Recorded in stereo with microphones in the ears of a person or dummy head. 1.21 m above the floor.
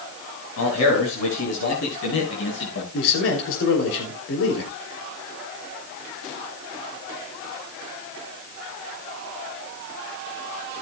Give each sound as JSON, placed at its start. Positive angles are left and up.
{"t": 0.6, "sound": "a man speaking", "side_deg": 75, "distance_m": 5.5}
{"t": 2.9, "sound": "a man speaking", "side_deg": 75, "distance_m": 3.0}